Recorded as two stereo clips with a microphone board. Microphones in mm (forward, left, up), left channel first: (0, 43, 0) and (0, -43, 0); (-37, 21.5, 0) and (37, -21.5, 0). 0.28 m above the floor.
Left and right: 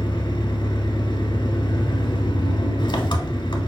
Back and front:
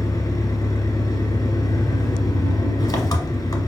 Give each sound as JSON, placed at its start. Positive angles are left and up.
{"t": 0.0, "sound": "an engine running", "azimuth_deg": 110, "distance_m": 0.8}